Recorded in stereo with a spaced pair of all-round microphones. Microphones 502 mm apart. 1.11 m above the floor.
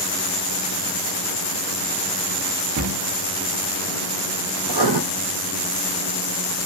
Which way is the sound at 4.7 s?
50° right (ahead or behind).